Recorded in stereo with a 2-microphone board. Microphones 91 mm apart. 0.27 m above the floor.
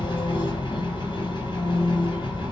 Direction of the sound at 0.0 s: 55° left (ahead or behind).